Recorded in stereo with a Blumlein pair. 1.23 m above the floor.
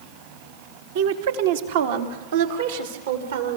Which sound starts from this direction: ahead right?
A woman speaking, at 0.9 s.